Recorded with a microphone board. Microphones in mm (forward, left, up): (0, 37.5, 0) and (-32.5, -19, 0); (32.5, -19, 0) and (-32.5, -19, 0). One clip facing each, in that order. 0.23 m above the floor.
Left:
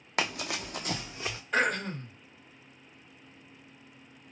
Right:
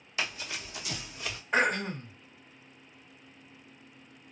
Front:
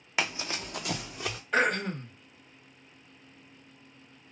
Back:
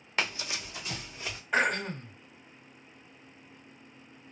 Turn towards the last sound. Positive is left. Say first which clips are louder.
# right 1 dB, front 1 dB
turn(degrees=-120)